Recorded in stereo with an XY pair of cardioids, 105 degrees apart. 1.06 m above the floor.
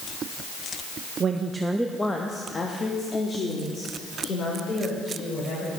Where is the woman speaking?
50° right, 0.8 m; by 5.8 s 55° left, 5 m.